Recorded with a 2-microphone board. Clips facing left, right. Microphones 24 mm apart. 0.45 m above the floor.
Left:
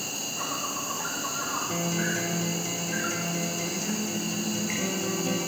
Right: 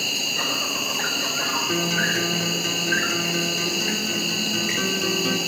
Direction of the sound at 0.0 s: 70° right (ahead or behind).